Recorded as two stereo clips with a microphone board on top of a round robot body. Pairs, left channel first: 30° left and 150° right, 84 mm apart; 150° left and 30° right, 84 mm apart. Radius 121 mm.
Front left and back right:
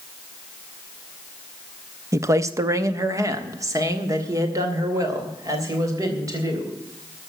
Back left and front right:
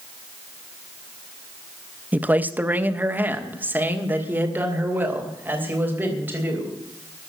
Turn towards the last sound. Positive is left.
turn(degrees=-100)